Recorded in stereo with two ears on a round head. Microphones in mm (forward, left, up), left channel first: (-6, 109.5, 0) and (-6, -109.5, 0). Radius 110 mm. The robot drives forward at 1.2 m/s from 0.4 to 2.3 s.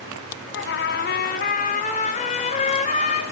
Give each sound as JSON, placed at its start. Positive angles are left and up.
{"t": 0.5, "sound": "a trumpet", "side_deg": 55, "distance_m": 2.5}